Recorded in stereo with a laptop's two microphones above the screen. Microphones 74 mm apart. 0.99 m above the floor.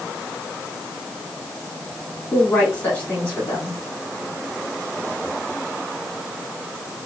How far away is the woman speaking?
About 3 m.